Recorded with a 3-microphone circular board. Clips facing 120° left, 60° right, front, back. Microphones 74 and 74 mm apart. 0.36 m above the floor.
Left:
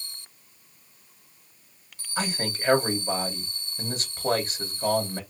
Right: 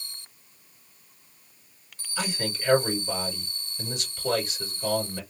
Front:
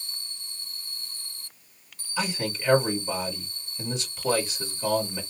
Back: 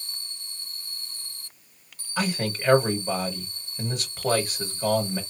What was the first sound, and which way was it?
A man speaking, 160° left.